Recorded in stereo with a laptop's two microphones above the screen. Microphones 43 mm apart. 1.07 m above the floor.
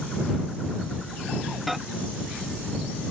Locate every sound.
1.7 s a microwave: 5° right (ahead or behind)